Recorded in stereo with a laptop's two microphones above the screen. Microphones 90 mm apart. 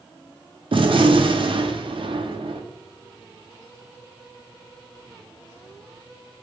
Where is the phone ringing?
No phone ringing in this recording.